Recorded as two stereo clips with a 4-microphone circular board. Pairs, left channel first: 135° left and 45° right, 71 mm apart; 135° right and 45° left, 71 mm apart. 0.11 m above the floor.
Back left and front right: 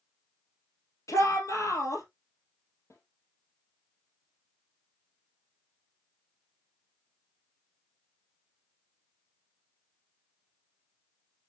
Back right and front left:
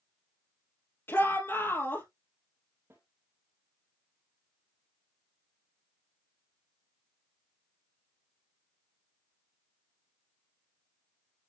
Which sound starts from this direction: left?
A snare drum, at 2.9 s.